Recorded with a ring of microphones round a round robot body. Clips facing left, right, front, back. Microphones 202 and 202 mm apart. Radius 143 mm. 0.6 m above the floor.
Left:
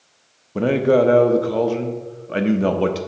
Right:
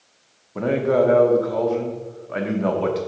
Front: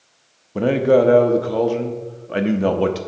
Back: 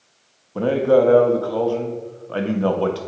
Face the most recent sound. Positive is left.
turn(degrees=60)